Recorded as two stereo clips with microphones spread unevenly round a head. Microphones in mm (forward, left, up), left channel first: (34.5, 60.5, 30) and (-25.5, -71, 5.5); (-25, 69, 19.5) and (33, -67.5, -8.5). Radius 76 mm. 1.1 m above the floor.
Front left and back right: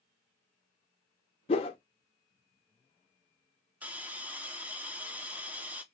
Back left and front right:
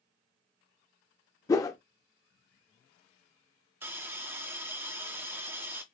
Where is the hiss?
75° right, 0.7 m.